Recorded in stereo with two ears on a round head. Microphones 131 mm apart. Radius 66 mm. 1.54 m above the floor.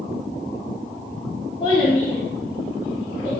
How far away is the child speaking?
About 1.5 m.